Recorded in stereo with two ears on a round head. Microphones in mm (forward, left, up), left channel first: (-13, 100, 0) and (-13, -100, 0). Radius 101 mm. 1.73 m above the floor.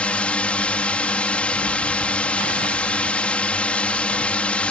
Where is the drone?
5° left (ahead or behind).